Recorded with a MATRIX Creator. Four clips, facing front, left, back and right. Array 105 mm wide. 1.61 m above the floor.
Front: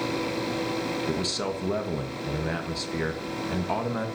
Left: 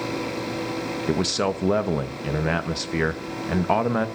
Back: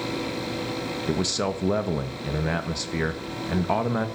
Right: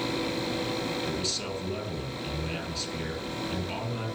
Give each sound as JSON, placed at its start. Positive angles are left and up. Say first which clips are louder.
{"t": 1.1, "sound": "a man speaking", "louder": "left 10 dB, back 3 dB", "azimuth_deg": 105, "distance_m": 1.8}